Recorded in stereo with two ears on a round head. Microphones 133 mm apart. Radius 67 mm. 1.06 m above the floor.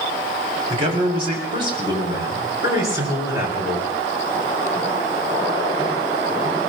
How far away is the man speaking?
About 6 m.